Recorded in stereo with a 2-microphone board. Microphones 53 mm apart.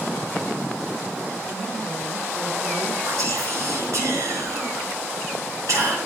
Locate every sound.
1.5 s a woman speaking: 70° right (ahead or behind), 4.5 m
3.0 s whispering: 75° right (ahead or behind), 5 m